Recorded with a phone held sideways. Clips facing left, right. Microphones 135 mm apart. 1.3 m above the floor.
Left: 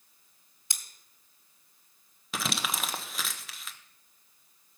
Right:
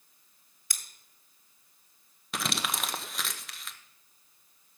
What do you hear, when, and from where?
0.7 s scissors: 25° left (ahead or behind), 2.0 m
2.3 s crumpling: centre (ahead or behind), 0.9 m